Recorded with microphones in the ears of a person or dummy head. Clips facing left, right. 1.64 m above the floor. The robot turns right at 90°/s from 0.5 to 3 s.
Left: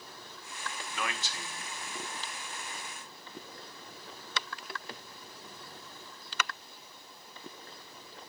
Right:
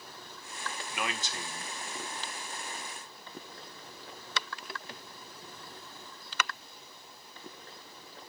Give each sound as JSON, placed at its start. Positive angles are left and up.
{"t": 0.9, "sound": "a man speaking", "azimuth_deg": -170, "distance_m": 1.3}